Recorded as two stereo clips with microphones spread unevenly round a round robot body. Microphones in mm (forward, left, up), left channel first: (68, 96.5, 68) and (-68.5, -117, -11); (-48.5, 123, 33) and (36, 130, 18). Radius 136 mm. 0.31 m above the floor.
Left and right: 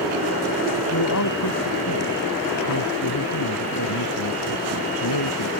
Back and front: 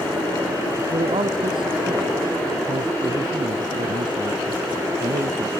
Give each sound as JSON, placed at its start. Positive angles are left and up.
{"t": 0.9, "sound": "a man speaking", "azimuth_deg": 25}